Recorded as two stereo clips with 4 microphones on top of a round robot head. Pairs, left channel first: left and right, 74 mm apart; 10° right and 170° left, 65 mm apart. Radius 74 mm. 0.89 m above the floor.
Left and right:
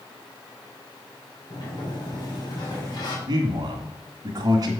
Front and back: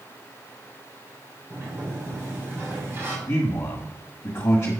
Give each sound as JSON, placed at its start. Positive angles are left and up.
{"t": 1.5, "sound": "a sliding door", "azimuth_deg": 115, "distance_m": 3.0}
{"t": 3.3, "sound": "a man speaking", "azimuth_deg": -60, "distance_m": 1.5}